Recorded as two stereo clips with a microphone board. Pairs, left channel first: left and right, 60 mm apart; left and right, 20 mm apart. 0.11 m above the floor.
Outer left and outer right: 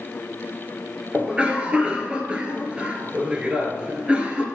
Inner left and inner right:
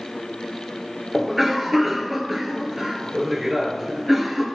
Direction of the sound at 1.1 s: 20° right (ahead or behind).